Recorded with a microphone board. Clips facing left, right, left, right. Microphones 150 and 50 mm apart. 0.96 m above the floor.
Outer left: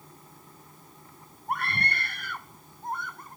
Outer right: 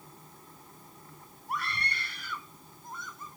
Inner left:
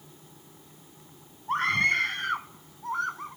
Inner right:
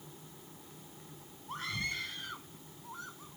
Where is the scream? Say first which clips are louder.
Outer left 5 dB, inner left 14 dB; 60° left (ahead or behind); by 3.4 s 65° left (ahead or behind).